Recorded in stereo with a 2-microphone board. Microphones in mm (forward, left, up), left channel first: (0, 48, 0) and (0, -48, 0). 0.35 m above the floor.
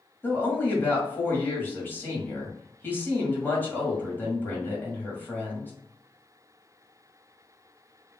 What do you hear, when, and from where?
0.2 s a woman speaking: 20° left (ahead or behind), 1.8 m